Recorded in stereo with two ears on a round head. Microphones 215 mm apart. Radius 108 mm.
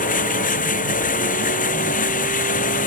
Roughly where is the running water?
Left.